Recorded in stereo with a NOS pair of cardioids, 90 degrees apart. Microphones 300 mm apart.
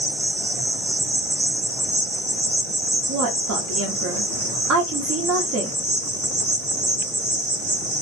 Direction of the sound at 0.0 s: 35° right.